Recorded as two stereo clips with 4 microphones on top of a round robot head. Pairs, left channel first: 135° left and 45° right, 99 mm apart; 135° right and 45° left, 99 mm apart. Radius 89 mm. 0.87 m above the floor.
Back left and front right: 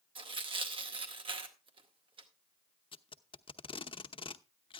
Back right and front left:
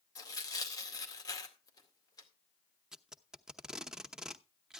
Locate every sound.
0.1 s tearing paper: 80° right, 2 m
2.9 s tape being pulled: 130° left, 0.9 m